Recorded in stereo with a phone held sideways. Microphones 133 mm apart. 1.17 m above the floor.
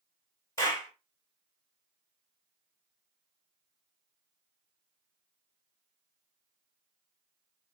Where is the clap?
25° left (ahead or behind), 1.7 m.